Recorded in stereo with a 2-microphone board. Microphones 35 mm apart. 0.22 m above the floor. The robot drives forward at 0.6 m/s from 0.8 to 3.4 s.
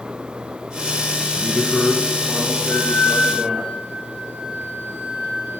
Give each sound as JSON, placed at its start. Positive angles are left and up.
{"t": 1.3, "sound": "a man speaking", "side_deg": 15, "distance_m": 4.0}
{"t": 2.7, "sound": "a flute", "side_deg": 45, "distance_m": 4.0}